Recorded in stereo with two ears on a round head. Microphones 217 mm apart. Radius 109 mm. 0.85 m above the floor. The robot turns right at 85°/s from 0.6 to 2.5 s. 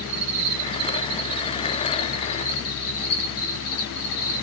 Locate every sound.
0.0 s an insect: 95° right, 1.5 m; by 4.4 s 70° left, 1.5 m